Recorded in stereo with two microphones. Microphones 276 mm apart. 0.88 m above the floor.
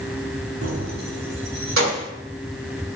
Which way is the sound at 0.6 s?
60° right (ahead or behind).